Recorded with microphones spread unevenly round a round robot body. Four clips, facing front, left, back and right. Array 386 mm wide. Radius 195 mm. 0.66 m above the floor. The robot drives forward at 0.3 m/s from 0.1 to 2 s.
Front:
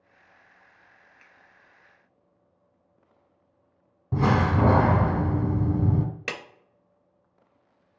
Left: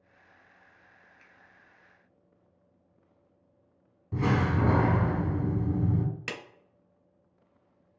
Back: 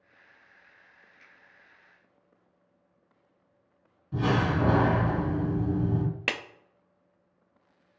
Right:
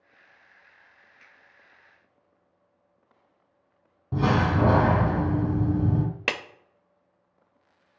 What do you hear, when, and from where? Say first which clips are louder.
1.2 s a finger snap: right 3 dB, front 1 dB; 30° right, 1.0 m
4.1 s a door slam: right 4 dB, front 4 dB; 15° right, 0.7 m
6.3 s a clap: right 8 dB, back 1 dB; 110° right, 0.5 m